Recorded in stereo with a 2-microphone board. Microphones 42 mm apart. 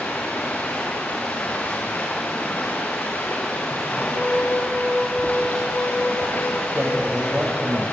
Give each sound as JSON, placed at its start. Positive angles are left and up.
{"t": 0.0, "sound": "running water", "side_deg": 40, "distance_m": 4.5}
{"t": 4.0, "sound": "a flute", "side_deg": 40, "distance_m": 8.0}
{"t": 6.8, "sound": "a man speaking", "side_deg": -35, "distance_m": 7.5}